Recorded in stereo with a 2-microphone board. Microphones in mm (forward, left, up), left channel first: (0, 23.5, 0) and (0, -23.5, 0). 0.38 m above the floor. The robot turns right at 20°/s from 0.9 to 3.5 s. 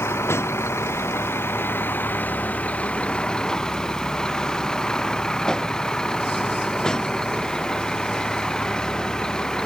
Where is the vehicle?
115° left; by 9.7 s 165° left.